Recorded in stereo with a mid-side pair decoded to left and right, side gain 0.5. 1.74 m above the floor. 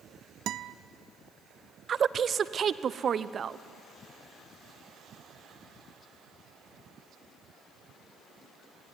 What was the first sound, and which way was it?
A guitar, 60° right.